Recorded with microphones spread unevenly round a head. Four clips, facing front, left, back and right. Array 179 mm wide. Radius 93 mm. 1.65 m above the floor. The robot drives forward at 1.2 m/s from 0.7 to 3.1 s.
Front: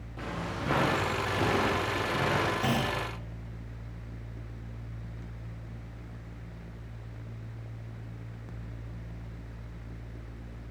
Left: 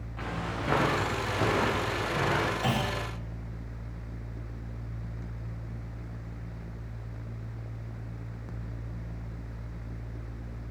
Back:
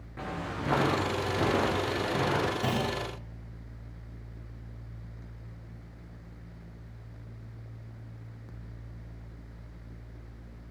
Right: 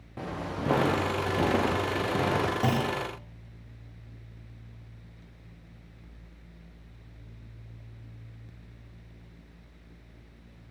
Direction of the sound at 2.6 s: 95° right.